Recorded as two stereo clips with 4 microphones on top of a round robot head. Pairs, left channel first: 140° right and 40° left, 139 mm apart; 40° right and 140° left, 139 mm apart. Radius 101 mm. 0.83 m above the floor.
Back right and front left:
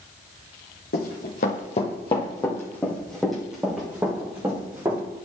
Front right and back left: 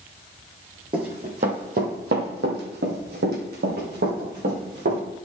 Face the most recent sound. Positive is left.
turn(degrees=110)